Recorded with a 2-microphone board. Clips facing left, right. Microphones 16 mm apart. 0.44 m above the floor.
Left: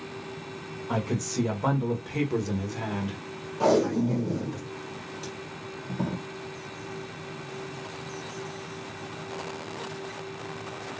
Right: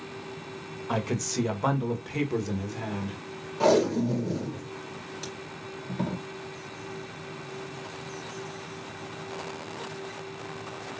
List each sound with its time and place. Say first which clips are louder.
0.9 s a man speaking: even; 30° right (ahead or behind), 1.4 m; by 4.6 s 55° left (ahead or behind), 1.5 m
3.6 s tape being pulled: even; 25° right (ahead or behind), 1.8 m